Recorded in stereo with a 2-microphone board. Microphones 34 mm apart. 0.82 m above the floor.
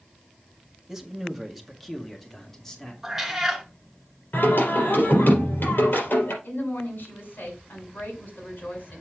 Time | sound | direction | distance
0.9 | a man speaking | 10° right (ahead or behind) | 1.4 m
3.0 | a cat meowing | 5° right (ahead or behind) | 2 m
4.3 | singing | 70° left (ahead or behind) | 4 m
6.4 | a woman speaking | 65° left (ahead or behind) | 5.5 m